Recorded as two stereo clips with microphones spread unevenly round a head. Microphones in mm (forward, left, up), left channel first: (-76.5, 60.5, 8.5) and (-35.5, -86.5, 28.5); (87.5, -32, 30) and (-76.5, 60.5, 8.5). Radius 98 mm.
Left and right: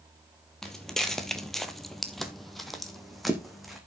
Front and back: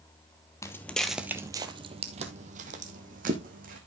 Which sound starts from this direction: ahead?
Footsteps, at 0.6 s.